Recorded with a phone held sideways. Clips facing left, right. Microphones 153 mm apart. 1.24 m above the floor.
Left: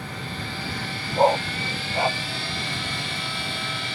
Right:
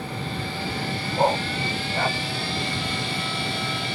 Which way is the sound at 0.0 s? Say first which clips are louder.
Right 4 dB; 25° right (ahead or behind).